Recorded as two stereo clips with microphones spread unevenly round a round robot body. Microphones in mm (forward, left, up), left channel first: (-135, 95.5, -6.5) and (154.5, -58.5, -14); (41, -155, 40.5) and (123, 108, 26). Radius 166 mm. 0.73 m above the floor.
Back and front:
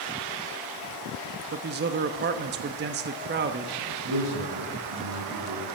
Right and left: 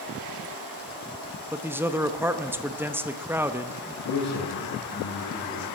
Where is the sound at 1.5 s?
Straight ahead, 0.8 m.